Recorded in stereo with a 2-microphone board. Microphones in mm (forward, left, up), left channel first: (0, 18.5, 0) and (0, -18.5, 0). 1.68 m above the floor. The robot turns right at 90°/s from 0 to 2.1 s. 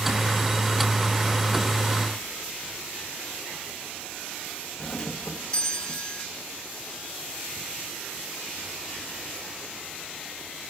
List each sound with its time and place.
4.8 s a doorbell: 20° left (ahead or behind)